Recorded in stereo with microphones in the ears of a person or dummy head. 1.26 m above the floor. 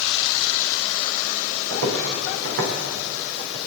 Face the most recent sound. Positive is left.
turn(degrees=-55)  # may be behind; listen again after turning